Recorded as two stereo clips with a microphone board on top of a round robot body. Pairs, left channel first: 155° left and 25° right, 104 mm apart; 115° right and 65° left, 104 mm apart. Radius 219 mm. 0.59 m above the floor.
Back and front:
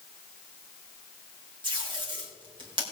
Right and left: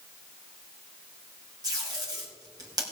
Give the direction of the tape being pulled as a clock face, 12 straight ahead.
11 o'clock.